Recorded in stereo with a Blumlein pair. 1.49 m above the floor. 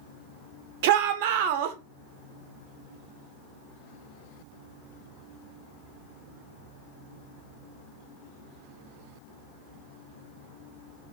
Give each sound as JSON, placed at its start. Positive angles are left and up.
{"t": 0.8, "sound": "a shout", "azimuth_deg": -50, "distance_m": 0.5}